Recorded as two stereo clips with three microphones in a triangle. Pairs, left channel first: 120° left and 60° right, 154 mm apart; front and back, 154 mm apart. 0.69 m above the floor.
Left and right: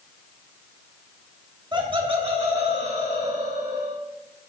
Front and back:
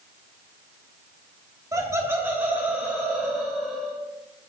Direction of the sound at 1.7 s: 115° right.